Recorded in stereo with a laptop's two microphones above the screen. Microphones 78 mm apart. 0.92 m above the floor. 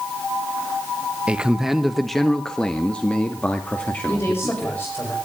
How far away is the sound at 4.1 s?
About 5.5 m.